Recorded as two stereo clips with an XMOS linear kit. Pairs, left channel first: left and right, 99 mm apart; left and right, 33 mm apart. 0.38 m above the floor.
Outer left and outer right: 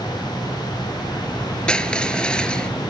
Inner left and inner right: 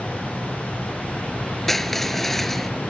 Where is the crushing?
10° left (ahead or behind).